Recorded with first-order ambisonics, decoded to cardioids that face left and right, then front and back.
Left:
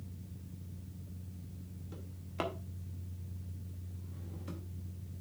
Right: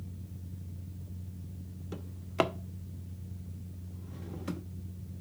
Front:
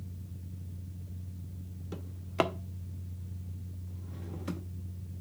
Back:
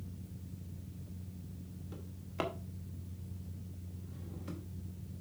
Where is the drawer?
45° right, 0.6 m.